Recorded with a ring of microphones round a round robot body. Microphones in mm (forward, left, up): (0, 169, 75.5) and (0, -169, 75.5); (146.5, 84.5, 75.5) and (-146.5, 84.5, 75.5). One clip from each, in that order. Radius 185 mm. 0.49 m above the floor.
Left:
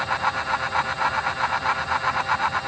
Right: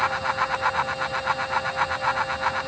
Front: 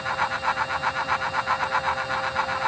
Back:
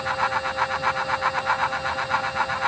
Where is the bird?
No bird in this recording.